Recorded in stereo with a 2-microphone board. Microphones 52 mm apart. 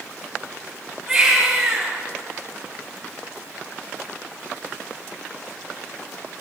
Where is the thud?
I don't hear a thud.